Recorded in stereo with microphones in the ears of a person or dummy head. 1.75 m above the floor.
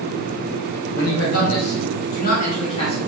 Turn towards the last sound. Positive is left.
turn(degrees=25)  # may be behind; listen again after turning